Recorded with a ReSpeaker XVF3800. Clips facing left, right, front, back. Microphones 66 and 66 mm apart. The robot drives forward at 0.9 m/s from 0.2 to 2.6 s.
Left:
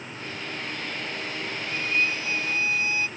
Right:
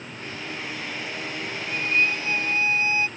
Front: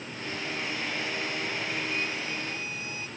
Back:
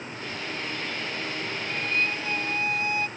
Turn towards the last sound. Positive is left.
turn(degrees=-145)